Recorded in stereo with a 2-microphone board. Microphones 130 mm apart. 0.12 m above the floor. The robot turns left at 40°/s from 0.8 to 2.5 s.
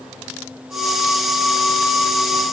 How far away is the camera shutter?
I don't hear a camera shutter.